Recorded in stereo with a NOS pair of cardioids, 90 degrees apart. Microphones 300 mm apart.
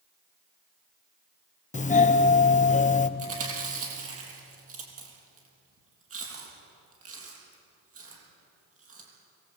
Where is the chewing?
50° right, 8 m.